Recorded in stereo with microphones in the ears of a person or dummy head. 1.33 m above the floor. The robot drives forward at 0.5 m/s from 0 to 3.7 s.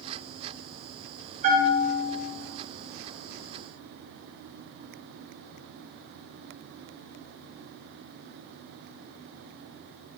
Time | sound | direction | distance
1.4 | a bell | 45° right (ahead or behind) | 4 m